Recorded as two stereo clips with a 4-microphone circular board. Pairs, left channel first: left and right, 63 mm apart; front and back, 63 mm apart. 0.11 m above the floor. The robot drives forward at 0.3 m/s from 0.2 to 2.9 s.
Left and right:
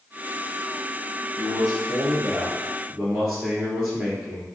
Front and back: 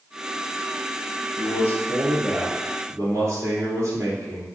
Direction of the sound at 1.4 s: 165° right.